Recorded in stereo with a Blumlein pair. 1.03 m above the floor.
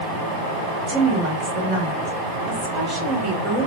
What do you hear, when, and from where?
0.9 s a woman speaking: 25° right, 1.4 m